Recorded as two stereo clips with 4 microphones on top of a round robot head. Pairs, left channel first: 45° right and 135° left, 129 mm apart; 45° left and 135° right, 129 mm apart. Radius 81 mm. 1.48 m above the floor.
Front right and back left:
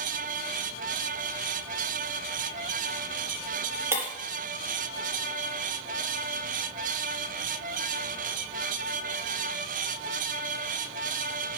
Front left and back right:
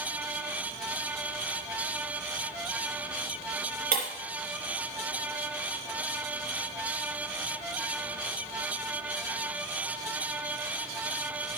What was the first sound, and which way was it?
Breaking glass, 150° right.